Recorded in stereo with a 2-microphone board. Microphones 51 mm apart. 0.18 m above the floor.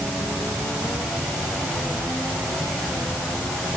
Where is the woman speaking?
I don't hear a woman speaking.